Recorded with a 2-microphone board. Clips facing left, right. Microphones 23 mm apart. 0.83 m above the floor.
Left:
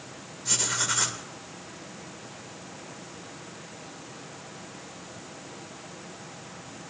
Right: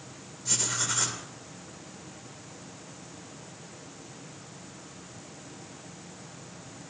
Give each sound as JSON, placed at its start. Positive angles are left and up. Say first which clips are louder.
{"t": 0.5, "sound": "writing", "louder": "left 3 dB", "side_deg": 25, "distance_m": 2.0}